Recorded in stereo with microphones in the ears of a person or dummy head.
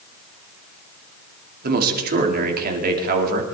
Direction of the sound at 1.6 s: 55° right (ahead or behind).